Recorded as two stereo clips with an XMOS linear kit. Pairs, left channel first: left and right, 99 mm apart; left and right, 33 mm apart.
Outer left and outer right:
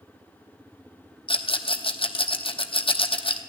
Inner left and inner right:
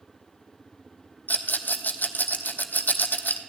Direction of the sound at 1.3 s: 80° left.